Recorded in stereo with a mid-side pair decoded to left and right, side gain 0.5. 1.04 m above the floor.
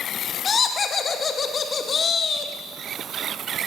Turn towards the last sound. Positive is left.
turn(degrees=40)